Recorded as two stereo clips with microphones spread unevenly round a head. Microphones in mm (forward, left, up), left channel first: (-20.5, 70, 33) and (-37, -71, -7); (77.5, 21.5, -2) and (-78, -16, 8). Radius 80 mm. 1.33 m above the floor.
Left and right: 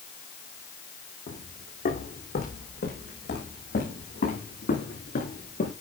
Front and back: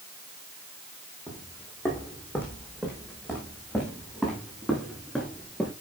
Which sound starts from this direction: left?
Footsteps, at 1.3 s.